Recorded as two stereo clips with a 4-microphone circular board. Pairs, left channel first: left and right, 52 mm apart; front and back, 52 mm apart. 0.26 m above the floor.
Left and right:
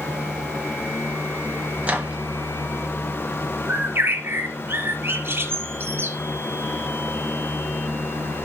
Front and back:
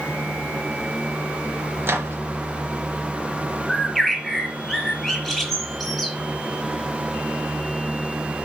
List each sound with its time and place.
1.8 s a microwave: 150° right, 1.2 m
3.7 s a bird: 85° right, 0.9 m